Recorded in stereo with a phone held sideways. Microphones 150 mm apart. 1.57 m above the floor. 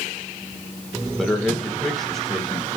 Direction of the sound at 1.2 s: Centre (ahead or behind).